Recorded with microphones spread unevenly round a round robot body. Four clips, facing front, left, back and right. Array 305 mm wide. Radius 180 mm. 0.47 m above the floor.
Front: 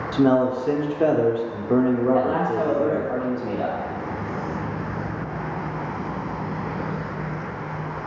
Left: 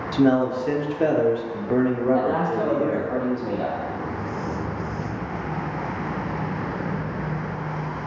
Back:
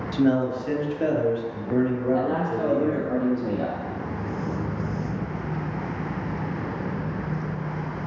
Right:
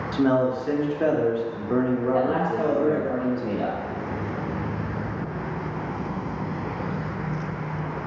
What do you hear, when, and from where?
0.1 s a man speaking: 20° left, 0.8 m
2.1 s a man speaking: 165° right, 0.7 m